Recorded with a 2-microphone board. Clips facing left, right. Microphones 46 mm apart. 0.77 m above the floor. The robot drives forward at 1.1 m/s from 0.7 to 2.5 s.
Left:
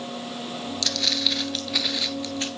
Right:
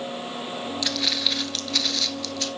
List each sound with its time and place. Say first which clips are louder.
0.8 s footsteps: left 1 dB; 15° right (ahead or behind), 0.8 m; by 2.5 s 25° left (ahead or behind), 0.9 m